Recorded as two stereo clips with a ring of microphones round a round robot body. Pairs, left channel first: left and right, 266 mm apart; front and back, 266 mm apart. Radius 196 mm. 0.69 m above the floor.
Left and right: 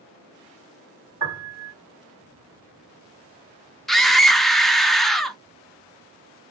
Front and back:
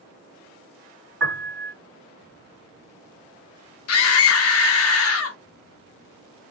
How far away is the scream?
About 0.9 m.